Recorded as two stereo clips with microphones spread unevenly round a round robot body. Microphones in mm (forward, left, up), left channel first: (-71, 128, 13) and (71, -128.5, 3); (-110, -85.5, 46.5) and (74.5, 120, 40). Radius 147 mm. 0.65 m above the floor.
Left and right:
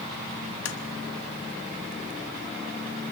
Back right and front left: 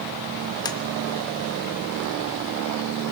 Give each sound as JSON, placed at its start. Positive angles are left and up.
{"t": 0.7, "sound": "tapping", "azimuth_deg": 155, "distance_m": 1.6}